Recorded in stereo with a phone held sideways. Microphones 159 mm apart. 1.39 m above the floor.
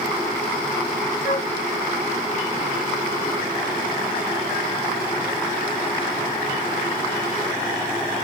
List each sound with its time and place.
1.2 s a flute: 70° left (ahead or behind), 2.5 m